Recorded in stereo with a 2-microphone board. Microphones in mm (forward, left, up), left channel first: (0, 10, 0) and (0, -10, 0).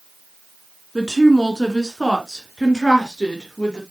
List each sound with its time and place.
0.9 s a woman speaking: 10° right (ahead or behind), 2.5 m; by 3.8 s 45° left (ahead or behind), 4 m